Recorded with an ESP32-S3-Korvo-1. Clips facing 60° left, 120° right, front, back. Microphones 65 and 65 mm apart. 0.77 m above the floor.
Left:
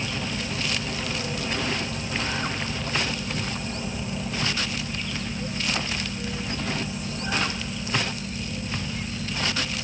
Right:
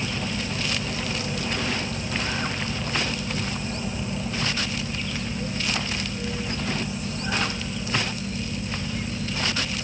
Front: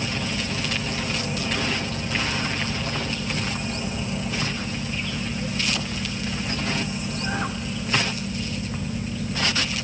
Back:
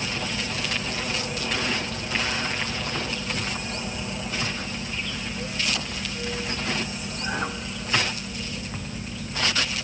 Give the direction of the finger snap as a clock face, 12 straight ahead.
I don't hear a finger snap.